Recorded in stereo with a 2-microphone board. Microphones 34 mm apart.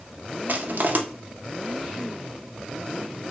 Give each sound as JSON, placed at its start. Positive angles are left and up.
{"t": 0.5, "sound": "crushing", "side_deg": -60, "distance_m": 0.5}